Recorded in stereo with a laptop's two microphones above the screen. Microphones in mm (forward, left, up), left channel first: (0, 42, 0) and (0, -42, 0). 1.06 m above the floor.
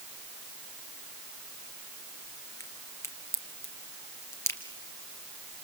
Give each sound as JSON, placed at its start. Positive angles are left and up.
{"t": 2.6, "sound": "a crack", "side_deg": 30, "distance_m": 2.5}